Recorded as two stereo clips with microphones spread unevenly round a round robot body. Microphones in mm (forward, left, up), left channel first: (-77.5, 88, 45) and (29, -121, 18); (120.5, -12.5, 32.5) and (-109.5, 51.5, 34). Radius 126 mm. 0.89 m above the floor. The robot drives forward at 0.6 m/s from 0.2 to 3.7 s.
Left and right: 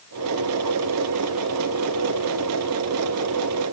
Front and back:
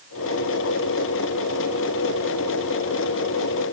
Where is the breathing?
I don't hear breathing.